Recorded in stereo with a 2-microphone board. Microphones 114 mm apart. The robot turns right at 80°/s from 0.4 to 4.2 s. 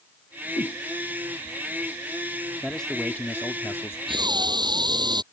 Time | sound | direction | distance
0.6 | a whoosh | 60° left (ahead or behind) | ?
2.6 | a man speaking | centre (ahead or behind) | ?
4.1 | breathing | 50° right (ahead or behind) | ?